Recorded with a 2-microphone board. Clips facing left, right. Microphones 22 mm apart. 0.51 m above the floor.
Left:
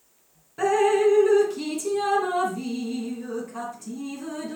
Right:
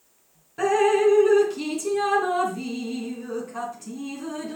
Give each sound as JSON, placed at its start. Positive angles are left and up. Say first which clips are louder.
{"t": 0.6, "sound": "dripping", "louder": "right 1 dB", "side_deg": -10, "distance_m": 3.0}